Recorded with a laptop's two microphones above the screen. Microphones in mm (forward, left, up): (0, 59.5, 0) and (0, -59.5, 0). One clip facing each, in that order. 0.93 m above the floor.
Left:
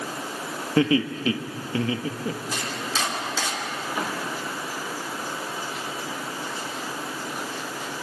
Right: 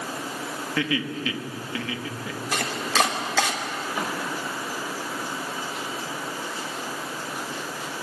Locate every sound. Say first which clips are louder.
0.8 s laughter: left 7 dB; 35° left (ahead or behind), 1.6 m
2.5 s chopping: right 5 dB; 70° right (ahead or behind), 2.5 m